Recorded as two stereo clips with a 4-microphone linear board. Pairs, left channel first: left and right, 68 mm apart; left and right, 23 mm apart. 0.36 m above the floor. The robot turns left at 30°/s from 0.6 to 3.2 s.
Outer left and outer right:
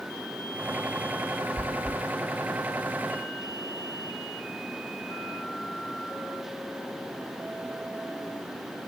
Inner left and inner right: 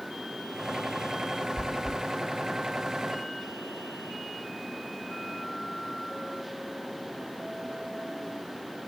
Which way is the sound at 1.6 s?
25° left (ahead or behind).